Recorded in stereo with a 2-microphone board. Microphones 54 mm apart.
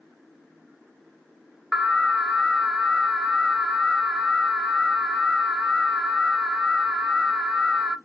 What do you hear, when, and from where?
1.7 s an alarm: centre (ahead or behind), 0.8 m